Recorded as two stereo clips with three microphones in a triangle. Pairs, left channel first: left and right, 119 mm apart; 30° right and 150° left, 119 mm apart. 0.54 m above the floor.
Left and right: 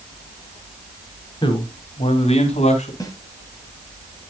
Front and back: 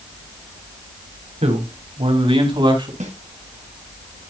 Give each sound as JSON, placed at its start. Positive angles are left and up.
{"t": 1.4, "sound": "a man speaking", "azimuth_deg": 135, "distance_m": 3.0}
{"t": 3.0, "sound": "a snare drum", "azimuth_deg": 150, "distance_m": 2.0}